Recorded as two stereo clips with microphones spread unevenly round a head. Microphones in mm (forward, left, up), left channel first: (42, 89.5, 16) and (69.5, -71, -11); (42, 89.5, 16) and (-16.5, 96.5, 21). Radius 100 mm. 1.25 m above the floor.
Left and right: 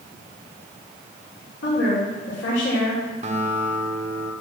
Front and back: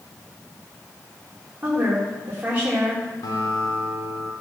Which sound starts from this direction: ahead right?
A guitar, at 3.2 s.